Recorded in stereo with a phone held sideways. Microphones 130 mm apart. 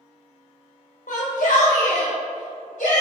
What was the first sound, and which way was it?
A shout, 80° left.